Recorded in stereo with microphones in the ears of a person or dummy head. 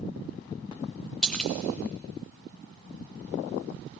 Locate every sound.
1.2 s a splash: 5° left (ahead or behind), 0.5 m